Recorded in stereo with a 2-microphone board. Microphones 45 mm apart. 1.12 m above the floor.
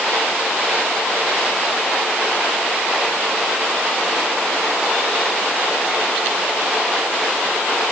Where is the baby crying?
No baby crying in this recording.